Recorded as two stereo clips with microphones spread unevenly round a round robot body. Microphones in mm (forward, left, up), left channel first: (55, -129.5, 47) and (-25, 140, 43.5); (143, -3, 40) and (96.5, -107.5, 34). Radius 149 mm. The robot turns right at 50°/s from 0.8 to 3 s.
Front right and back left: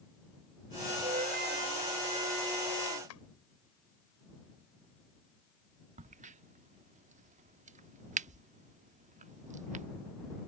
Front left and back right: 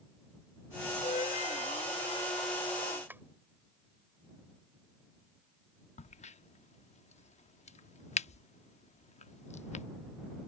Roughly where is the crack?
Ahead left.